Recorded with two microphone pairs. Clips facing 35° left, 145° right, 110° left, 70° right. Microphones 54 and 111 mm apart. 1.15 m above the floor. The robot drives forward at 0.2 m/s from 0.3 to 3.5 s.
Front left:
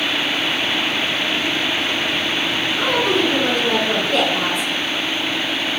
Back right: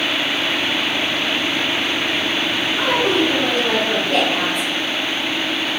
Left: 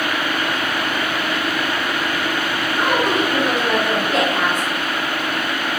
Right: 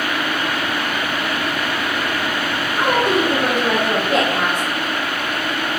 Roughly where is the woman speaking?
Behind right.